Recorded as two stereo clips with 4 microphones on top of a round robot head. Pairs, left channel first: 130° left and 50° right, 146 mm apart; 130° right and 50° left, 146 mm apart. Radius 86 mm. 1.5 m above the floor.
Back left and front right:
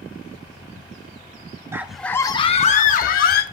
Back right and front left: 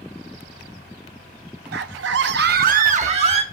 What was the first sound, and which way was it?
A scream, 25° left.